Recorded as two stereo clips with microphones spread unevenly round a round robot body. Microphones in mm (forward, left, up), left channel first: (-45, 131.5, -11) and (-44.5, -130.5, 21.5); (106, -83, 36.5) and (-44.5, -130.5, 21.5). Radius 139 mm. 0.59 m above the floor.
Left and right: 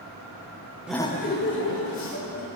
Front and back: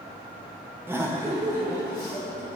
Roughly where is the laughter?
Behind.